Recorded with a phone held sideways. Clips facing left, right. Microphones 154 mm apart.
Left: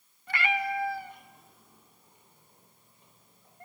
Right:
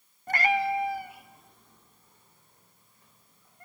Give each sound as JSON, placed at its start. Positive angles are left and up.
{"t": 0.3, "sound": "a cat meowing", "side_deg": -50, "distance_m": 0.9}